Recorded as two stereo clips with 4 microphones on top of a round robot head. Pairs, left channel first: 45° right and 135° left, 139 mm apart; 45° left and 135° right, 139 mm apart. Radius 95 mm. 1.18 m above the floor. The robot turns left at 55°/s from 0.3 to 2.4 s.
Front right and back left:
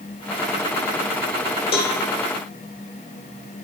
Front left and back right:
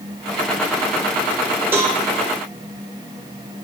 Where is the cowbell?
60° right, 1.3 m; by 2.0 s 70° right, 1.3 m.